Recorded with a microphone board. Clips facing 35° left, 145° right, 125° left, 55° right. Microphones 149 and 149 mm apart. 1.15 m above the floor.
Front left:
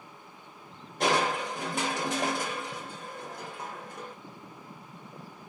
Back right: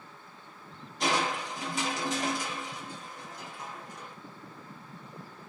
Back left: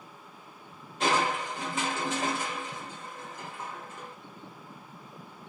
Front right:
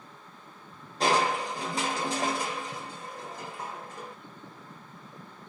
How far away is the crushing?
About 1.3 m.